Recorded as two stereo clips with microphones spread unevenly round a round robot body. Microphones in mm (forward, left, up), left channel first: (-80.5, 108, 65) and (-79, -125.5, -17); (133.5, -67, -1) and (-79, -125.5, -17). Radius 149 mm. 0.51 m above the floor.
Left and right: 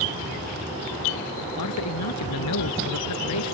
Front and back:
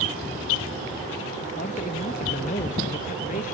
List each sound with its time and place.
1.6 s a man speaking: 80° left